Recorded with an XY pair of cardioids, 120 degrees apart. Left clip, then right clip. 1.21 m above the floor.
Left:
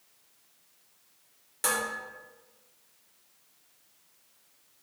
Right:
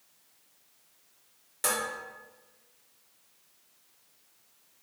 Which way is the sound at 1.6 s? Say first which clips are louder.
Left 1 dB; 10° left.